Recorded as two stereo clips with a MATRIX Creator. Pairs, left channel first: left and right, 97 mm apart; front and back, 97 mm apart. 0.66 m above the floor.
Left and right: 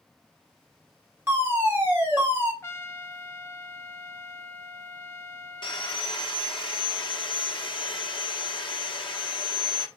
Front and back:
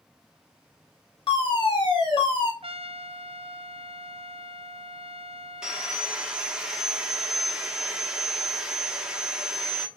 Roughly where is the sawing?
Left.